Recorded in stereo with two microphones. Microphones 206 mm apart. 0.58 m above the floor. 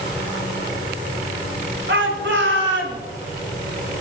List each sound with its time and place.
1.9 s a shout: 70° right (ahead or behind), 8.5 m